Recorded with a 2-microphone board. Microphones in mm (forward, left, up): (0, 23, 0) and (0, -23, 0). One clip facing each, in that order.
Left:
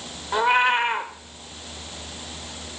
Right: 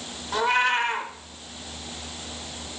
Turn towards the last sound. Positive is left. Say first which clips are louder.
# left 3 dB
turn(degrees=15)  # may be behind; listen again after turning